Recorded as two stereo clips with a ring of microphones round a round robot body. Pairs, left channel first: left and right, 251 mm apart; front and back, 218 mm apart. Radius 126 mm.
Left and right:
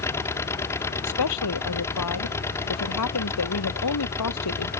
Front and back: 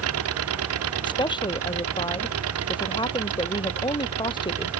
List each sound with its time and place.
0.0 s an engine running: 170° left
1.1 s a woman speaking: 70° left